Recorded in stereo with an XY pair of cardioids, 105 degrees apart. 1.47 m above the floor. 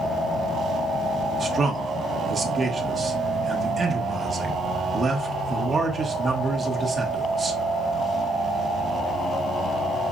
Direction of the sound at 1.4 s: 35° right.